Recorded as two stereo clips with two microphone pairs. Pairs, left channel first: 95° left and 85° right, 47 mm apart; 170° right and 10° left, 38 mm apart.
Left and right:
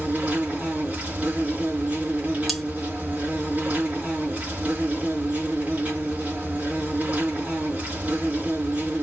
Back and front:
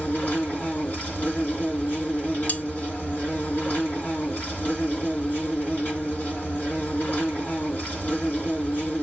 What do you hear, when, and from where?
0.0 s an insect: 140° right, 3.5 m
2.5 s cutlery clinking: straight behind, 0.7 m